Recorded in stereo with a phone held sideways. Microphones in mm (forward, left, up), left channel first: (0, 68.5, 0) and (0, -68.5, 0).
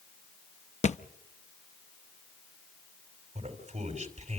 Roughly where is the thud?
Left.